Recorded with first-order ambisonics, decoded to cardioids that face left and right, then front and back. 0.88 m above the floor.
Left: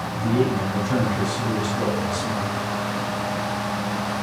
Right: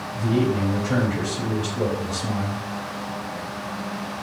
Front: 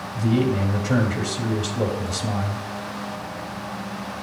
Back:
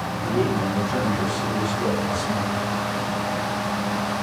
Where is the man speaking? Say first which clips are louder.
Even, front 1 dB; 20° right, 3.5 m.